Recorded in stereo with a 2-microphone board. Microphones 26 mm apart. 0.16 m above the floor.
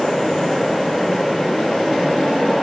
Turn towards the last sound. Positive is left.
No sound to turn to.